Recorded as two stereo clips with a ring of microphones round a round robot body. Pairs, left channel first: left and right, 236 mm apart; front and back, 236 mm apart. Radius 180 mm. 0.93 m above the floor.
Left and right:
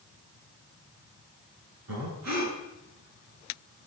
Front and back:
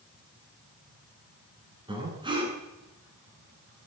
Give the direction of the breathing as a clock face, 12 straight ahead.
4 o'clock.